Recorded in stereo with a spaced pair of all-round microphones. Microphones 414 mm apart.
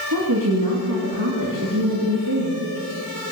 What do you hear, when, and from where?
0.1 s a woman speaking: 55° right (ahead or behind), 2.5 m